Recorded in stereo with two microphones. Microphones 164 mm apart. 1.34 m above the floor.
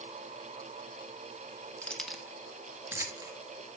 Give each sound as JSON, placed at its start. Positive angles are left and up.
{"t": 1.8, "sound": "keys jangling", "side_deg": 10, "distance_m": 1.4}